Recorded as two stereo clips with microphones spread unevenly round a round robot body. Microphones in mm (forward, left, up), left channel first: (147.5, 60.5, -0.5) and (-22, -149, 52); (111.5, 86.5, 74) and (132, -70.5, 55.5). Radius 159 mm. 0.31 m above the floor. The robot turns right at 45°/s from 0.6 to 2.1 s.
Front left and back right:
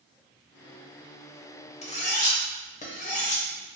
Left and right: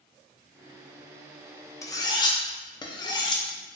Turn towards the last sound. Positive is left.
turn(degrees=35)